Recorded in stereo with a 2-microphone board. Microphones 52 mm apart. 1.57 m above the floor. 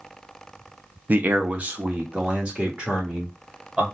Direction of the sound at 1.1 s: 35° right (ahead or behind).